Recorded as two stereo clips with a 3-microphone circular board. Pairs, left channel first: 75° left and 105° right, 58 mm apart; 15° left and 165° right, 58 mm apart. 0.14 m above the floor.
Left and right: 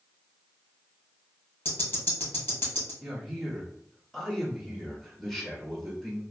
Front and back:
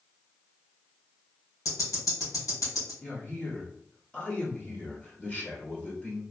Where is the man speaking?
Straight ahead, 1.0 m.